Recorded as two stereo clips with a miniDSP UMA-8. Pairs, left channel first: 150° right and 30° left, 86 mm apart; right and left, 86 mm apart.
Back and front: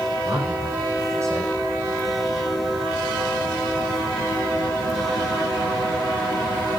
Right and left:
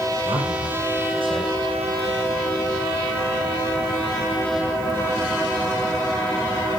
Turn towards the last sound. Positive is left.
turn(degrees=85)